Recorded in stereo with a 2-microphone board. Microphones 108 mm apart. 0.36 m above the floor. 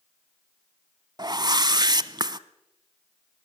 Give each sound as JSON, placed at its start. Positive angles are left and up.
{"t": 1.2, "sound": "a whoosh", "side_deg": -40, "distance_m": 0.8}